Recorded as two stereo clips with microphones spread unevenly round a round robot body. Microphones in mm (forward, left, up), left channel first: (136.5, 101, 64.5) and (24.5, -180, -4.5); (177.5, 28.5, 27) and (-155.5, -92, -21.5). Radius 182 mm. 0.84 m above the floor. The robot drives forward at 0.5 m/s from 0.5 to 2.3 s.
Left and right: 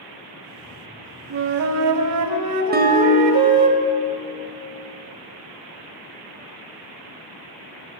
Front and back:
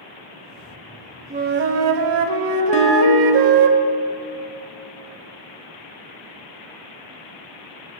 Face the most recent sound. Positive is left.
turn(degrees=-50)